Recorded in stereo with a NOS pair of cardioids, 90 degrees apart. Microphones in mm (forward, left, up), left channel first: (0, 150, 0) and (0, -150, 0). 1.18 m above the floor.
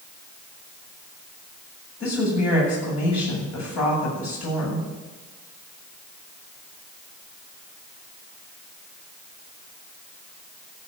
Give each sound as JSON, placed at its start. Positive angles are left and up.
{"t": 2.0, "sound": "a woman speaking", "azimuth_deg": 60, "distance_m": 7.5}